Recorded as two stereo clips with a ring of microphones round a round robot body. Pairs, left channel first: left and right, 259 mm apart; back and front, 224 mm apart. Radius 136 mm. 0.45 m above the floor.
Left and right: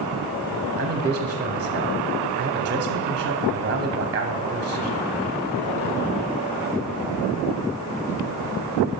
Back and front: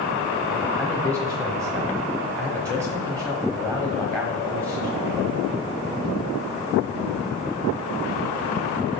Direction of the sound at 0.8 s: 100° right.